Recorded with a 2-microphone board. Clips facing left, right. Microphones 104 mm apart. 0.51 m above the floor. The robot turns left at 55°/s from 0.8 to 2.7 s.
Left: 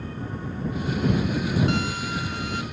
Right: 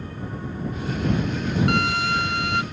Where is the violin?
60° right; by 2.6 s 110° right.